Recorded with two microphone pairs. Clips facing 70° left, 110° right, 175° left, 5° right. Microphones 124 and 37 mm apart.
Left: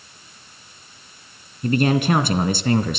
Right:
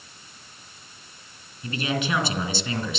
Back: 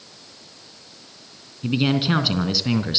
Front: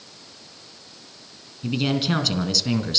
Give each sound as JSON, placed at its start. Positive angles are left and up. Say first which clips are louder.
{"t": 1.6, "sound": "a man speaking", "louder": "left 9 dB, back 3 dB", "azimuth_deg": 105, "distance_m": 3.0}